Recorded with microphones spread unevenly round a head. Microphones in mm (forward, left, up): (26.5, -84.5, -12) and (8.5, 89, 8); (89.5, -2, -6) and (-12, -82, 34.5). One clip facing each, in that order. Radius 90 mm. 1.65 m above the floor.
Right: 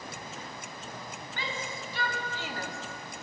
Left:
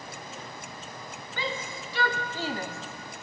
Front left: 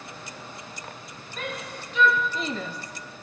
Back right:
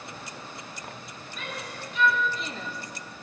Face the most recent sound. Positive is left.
turn(degrees=-25)